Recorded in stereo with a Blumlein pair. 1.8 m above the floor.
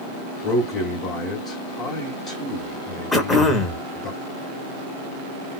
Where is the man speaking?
35° left, 0.9 m.